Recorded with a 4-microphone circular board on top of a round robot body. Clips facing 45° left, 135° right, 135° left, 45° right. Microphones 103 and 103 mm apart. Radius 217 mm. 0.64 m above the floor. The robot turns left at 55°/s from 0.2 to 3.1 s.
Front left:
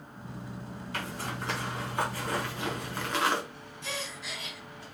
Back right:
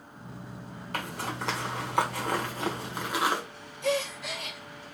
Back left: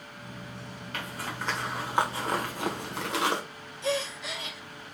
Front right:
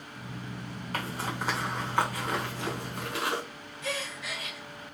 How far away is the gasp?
About 1.3 m.